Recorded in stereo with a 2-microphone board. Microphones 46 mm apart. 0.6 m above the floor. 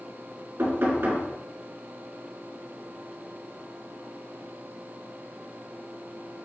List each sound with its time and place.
0.6 s knocking: 50° right (ahead or behind), 4.5 m